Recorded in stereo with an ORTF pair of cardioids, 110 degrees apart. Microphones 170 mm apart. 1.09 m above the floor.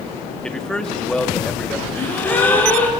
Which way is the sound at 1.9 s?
10° left.